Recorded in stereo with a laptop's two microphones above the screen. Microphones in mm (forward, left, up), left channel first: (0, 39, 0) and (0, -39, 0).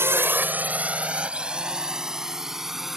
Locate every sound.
0.0 s a drone: 30° right (ahead or behind); by 3.0 s 5° right (ahead or behind)